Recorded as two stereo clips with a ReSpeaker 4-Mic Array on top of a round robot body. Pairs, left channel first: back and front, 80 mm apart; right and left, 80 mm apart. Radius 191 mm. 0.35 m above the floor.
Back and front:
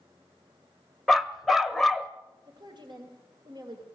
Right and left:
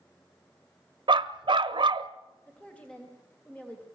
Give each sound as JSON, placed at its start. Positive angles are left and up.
{"t": 1.1, "sound": "a dog barking", "azimuth_deg": 90, "distance_m": 0.8}
{"t": 2.5, "sound": "a woman speaking", "azimuth_deg": -15, "distance_m": 3.0}